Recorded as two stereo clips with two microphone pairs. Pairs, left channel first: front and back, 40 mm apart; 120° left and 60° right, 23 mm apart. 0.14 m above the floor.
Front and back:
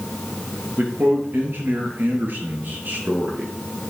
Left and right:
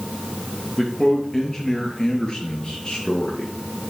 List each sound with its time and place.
0.8 s a man speaking: 160° right, 2.5 m; by 3.5 s 140° left, 2.5 m